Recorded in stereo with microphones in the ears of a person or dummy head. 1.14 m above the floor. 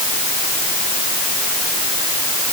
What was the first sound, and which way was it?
Only background noise.